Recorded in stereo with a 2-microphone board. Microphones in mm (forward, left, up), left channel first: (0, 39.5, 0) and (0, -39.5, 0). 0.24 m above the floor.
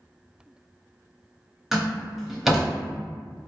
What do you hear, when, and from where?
1.7 s a door slam: 5° right (ahead or behind), 1.1 m